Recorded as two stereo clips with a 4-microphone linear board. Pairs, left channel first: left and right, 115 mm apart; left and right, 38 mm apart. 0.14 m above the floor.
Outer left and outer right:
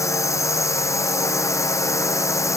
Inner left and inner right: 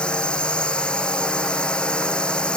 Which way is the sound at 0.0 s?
25° left (ahead or behind).